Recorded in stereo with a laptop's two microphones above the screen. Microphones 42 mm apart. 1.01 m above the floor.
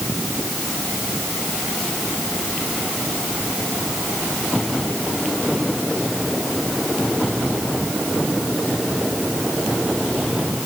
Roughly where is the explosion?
No explosion in this recording.